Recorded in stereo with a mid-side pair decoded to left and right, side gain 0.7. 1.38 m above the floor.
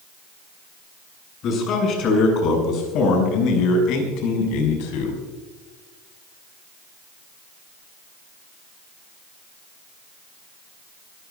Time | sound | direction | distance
1.4 | a man speaking | 45° left | 8 m